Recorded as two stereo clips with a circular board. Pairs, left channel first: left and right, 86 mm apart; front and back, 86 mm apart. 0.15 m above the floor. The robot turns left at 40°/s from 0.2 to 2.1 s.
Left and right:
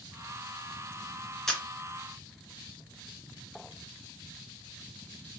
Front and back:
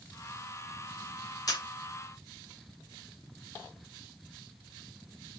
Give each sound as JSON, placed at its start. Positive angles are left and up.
{"t": 1.5, "sound": "a camera shutter", "azimuth_deg": 5, "distance_m": 2.0}